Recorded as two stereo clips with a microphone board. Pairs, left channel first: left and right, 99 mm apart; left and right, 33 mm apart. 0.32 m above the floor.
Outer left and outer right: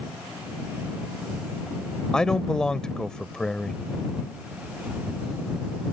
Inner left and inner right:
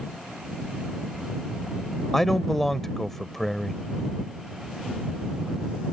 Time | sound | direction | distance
2.1 | a man speaking | 10° left (ahead or behind) | ?